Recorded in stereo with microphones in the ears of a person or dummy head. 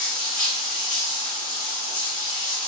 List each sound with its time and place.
0.0 s running water: 35° left (ahead or behind), 1.2 m